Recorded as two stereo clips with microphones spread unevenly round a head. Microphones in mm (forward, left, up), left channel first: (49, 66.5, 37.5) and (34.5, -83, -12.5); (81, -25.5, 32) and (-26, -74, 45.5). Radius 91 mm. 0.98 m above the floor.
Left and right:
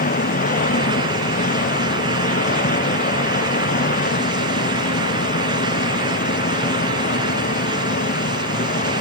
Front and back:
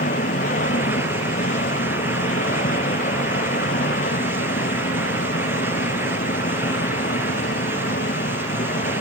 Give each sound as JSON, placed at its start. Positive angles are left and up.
{"t": 0.0, "sound": "an engine running", "azimuth_deg": 55}